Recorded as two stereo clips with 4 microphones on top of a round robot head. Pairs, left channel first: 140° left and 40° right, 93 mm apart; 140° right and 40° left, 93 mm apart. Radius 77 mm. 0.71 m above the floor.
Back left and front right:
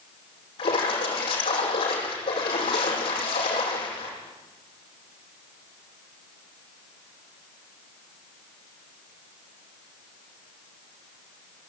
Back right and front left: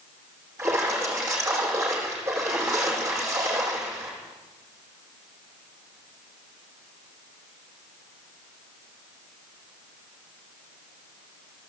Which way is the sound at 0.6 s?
100° left.